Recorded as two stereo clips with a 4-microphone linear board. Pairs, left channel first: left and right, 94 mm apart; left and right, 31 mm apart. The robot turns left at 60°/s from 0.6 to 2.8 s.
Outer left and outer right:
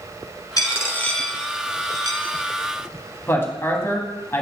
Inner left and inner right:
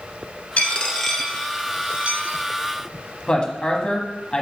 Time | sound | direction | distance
0.6 | a dropped coin | 40° left (ahead or behind) | 0.9 m
3.3 | a woman speaking | 25° left (ahead or behind) | 1.2 m